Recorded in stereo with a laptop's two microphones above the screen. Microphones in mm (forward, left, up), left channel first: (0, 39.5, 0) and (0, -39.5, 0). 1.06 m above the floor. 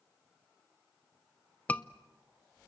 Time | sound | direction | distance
1.7 | a scream | 20° left (ahead or behind) | 0.6 m